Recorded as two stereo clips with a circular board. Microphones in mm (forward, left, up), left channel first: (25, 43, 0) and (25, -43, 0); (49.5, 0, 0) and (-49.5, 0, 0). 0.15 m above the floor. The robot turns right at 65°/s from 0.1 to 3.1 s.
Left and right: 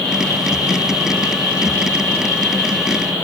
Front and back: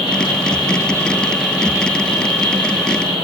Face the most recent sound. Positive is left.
turn(degrees=-155)